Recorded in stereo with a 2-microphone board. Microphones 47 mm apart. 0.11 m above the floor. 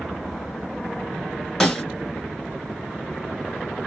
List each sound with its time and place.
1.6 s a snare drum: 10° left (ahead or behind), 1.2 m